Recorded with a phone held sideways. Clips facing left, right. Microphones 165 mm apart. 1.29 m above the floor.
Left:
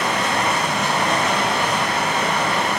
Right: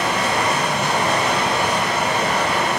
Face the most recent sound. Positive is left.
turn(degrees=-30)  # may be behind; listen again after turning